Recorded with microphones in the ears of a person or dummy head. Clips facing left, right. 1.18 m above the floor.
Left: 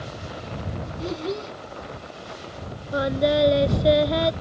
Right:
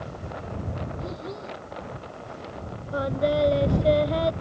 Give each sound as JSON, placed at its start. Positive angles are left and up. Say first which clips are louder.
{"t": 1.0, "sound": "a child speaking", "louder": "left 6 dB", "side_deg": 45}
{"t": 2.9, "sound": "singing", "louder": "left 3 dB", "side_deg": 30}